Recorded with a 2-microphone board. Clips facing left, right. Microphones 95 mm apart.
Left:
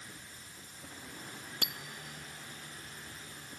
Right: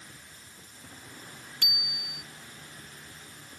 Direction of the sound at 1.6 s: 35° left (ahead or behind).